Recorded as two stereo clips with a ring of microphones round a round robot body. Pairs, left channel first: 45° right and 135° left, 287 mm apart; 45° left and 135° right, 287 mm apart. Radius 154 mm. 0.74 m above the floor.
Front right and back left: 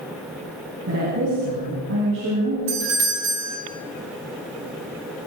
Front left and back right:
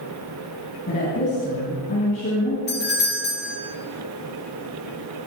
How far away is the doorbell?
About 3 m.